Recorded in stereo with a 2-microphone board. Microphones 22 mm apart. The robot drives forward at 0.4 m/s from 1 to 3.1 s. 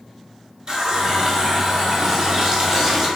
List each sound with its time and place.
0.7 s a running tap: 35° right (ahead or behind), 0.6 m; by 3.1 s 25° right (ahead or behind), 0.8 m